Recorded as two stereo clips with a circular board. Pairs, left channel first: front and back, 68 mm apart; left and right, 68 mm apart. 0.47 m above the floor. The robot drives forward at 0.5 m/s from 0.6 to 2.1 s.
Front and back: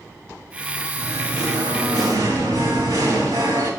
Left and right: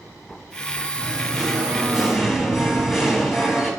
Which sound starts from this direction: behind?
Singing, at 1.0 s.